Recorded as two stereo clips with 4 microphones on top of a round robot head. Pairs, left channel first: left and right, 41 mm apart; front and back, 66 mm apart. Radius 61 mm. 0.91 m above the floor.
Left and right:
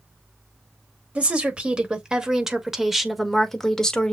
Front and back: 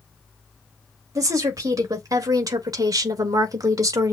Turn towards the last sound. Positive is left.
turn(degrees=160)